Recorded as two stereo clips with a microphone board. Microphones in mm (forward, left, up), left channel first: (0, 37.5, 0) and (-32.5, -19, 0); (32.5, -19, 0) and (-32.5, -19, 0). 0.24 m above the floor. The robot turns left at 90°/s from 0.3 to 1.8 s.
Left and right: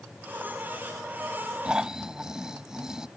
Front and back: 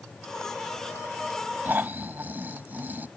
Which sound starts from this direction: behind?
Snoring, at 1.6 s.